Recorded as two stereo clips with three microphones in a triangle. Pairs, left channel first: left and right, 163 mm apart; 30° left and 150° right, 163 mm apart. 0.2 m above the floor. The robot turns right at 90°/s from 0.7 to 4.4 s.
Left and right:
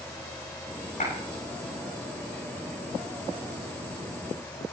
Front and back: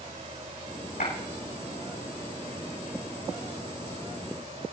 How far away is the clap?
About 9 m.